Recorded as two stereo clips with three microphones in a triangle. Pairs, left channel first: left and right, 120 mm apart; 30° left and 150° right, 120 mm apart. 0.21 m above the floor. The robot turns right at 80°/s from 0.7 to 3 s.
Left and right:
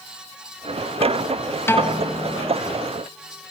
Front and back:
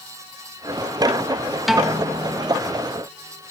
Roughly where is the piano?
Behind left.